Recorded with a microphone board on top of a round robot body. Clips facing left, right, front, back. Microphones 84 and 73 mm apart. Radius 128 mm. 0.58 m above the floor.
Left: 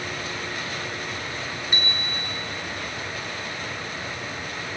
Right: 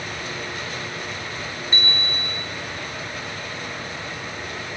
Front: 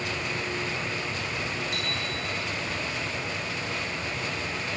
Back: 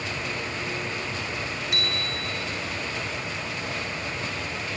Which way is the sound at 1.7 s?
165° left.